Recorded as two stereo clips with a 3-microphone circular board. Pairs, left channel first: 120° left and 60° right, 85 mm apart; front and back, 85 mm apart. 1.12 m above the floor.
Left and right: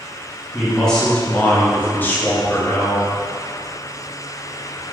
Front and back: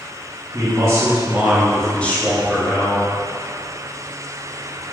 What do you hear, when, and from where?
0.5 s a man speaking: 155° right, 0.6 m; by 3.1 s 50° left, 1.0 m